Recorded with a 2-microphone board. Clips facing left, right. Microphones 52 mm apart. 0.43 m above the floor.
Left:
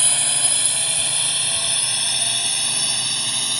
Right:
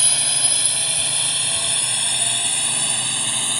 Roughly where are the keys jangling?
I don't hear keys jangling.